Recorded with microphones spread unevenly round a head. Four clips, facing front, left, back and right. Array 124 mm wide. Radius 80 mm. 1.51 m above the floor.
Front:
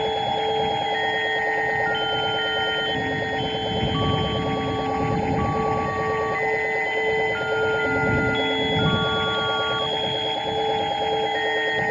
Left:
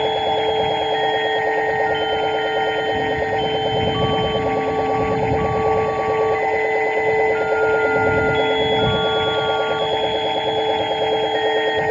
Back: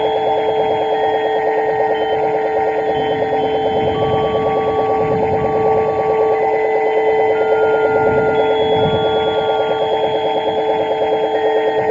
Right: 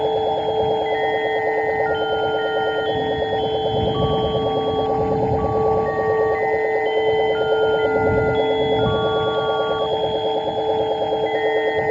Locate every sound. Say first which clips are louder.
0.0 s a machine running: left 1 dB, back 8 dB; 170° right